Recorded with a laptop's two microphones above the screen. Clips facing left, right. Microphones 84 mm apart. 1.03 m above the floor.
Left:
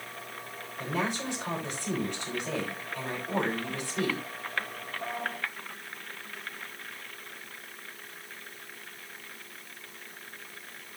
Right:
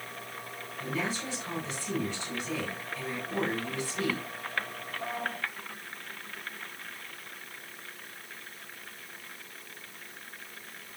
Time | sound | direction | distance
0.8 | a woman speaking | 50° left (ahead or behind) | 5.5 m